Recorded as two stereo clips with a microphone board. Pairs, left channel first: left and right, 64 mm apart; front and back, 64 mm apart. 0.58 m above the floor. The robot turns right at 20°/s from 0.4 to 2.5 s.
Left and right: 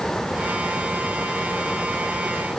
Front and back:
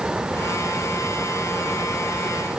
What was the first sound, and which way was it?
Only background noise.